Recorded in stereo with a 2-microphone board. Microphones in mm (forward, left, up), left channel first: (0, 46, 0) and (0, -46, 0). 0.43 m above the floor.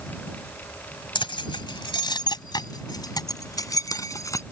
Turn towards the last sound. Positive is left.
turn(degrees=35)  # may be behind; listen again after turning